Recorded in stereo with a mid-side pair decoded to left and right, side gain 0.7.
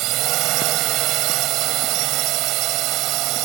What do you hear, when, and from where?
0.0 s a drone: 60° right